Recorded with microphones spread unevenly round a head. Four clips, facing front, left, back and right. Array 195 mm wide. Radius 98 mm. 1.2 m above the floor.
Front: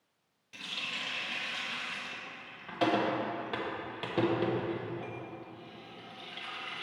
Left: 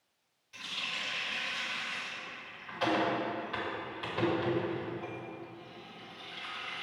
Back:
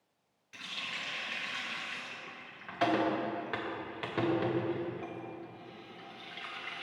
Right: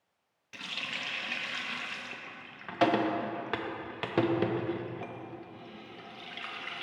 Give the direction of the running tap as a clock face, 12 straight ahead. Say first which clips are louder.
Right 1 dB, front 1 dB; 2 o'clock.